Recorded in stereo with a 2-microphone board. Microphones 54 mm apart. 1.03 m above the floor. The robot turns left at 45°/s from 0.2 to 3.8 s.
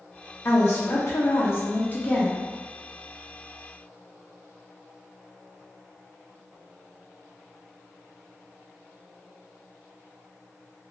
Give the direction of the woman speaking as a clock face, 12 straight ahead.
8 o'clock.